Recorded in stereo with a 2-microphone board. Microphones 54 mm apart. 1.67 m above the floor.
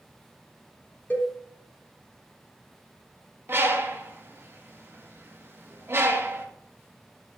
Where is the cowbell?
35° left (ahead or behind), 3.5 m.